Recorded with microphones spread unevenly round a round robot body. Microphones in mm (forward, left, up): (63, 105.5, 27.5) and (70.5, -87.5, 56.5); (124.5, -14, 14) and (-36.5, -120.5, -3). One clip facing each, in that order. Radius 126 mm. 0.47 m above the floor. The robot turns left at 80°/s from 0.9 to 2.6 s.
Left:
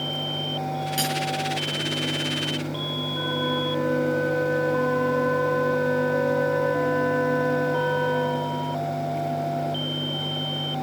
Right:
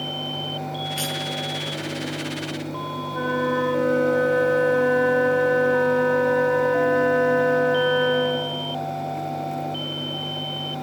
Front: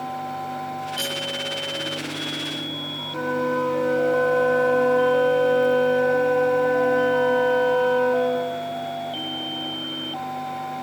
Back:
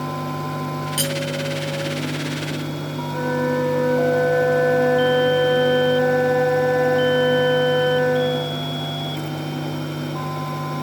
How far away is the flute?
About 2 m.